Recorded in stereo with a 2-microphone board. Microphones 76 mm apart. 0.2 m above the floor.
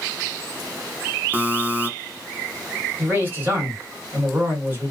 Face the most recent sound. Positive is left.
turn(degrees=-30)  # may be behind; listen again after turning